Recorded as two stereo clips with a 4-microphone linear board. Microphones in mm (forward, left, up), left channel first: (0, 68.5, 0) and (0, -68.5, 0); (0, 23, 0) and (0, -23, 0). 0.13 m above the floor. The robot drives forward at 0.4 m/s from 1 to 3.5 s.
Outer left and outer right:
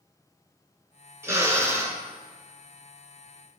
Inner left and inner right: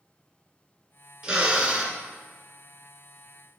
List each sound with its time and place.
1.2 s a drill: 20° right (ahead or behind), 1.6 m